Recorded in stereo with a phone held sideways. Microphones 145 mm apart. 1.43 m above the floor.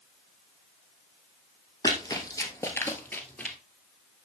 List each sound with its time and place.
1.8 s running footsteps: 25° left (ahead or behind), 1.7 m; by 3.6 s 5° left (ahead or behind), 1.6 m